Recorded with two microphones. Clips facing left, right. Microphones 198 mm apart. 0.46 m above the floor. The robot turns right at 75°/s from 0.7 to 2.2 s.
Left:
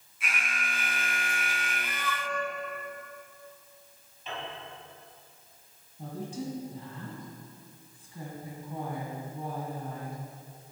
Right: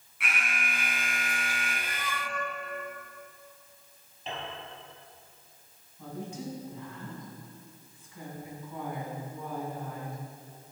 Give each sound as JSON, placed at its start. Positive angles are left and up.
{"t": 0.2, "sound": "an alarm", "azimuth_deg": -85, "distance_m": 4.5}
{"t": 1.8, "sound": "a cat meowing", "side_deg": -35, "distance_m": 1.4}
{"t": 4.3, "sound": "a piano", "side_deg": -35, "distance_m": 5.0}
{"t": 6.0, "sound": "a woman speaking", "side_deg": 35, "distance_m": 3.0}